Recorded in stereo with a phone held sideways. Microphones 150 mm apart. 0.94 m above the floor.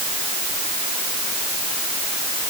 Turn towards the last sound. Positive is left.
No sound to turn to.